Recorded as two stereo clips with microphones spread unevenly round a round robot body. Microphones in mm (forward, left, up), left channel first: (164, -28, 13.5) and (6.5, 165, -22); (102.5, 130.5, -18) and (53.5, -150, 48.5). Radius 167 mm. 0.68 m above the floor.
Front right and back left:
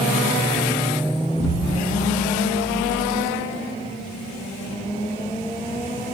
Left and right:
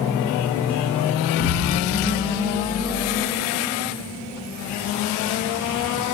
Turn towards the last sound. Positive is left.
turn(degrees=30)